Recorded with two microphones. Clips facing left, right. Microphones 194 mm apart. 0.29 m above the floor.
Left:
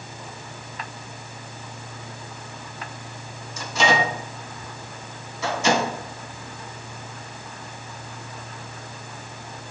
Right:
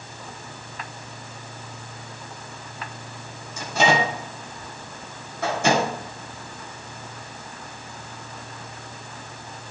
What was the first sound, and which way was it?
A microwave, 55° right (ahead or behind).